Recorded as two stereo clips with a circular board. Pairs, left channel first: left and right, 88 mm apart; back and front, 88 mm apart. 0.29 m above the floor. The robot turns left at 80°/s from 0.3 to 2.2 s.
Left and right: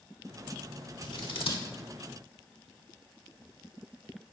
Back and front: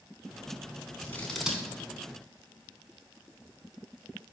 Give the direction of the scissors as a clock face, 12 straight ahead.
8 o'clock.